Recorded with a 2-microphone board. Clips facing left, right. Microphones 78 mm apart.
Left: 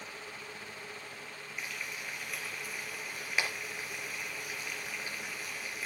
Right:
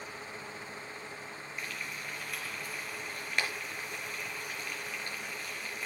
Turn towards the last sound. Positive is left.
turn(degrees=5)  # may be behind; listen again after turning